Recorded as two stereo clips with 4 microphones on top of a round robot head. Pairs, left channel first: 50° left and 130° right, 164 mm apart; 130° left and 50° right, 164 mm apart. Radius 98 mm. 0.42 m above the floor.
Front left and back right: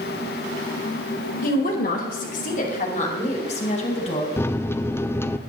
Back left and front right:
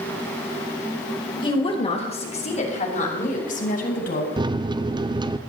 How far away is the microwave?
About 0.6 m.